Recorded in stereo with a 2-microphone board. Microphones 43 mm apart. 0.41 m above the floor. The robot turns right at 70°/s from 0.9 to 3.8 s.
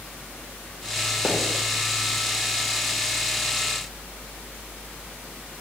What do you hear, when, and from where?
1.2 s a pop: 25° right (ahead or behind), 1.2 m; by 1.4 s 20° right (ahead or behind), 1.2 m